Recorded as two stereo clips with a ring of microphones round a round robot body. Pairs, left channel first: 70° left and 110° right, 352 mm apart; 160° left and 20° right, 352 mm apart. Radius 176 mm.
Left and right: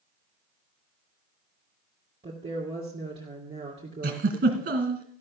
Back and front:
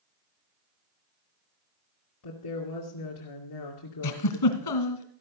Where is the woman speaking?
175° left, 2.5 m.